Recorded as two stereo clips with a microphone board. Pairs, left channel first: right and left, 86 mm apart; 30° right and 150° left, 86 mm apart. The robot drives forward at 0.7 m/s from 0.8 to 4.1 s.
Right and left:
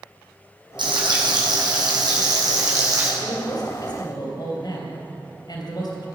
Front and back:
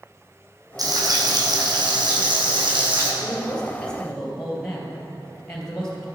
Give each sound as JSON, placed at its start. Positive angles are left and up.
{"t": 0.8, "sound": "frying", "azimuth_deg": 110, "distance_m": 2.5}
{"t": 3.2, "sound": "a man speaking", "azimuth_deg": -95, "distance_m": 3.0}